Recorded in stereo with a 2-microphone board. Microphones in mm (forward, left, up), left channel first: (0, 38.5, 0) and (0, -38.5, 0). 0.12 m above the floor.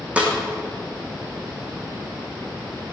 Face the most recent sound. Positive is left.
turn(degrees=-15)  # may be behind; listen again after turning